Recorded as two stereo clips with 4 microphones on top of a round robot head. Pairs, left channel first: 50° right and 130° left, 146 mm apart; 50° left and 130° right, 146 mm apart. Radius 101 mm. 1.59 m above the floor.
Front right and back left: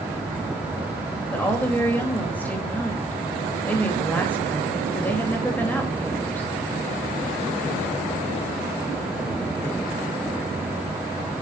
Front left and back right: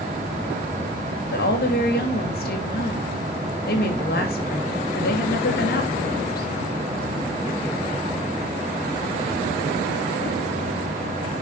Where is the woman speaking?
30° left, 3 m.